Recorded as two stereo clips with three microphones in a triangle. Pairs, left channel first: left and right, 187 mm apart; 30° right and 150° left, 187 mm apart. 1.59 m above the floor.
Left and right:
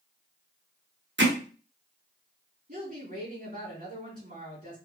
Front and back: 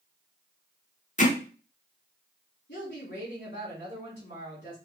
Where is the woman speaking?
60° right, 2.5 m.